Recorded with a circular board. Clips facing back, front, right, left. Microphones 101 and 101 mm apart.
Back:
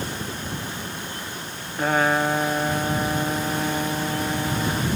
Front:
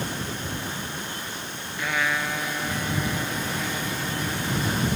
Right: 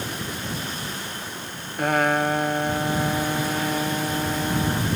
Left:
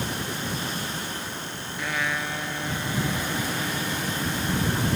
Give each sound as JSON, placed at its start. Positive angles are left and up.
{"t": 1.8, "sound": "a trumpet", "azimuth_deg": -130}